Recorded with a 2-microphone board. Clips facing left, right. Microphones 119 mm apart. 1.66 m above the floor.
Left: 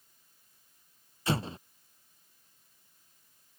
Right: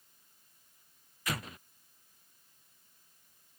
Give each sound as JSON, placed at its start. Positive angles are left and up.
{"t": 1.3, "sound": "an explosion", "side_deg": 30}